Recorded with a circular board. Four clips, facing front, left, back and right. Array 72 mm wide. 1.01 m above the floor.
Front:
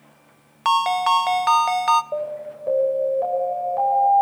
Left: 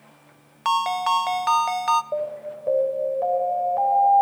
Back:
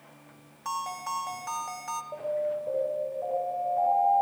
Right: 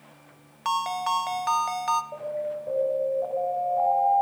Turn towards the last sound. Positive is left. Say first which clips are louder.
# left 2 dB, front 2 dB
turn(degrees=45)